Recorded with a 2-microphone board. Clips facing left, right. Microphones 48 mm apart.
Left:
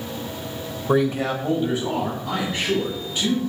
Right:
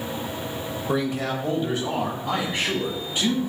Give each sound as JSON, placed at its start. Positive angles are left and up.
{"t": 0.9, "sound": "a man speaking", "side_deg": 20, "distance_m": 0.5}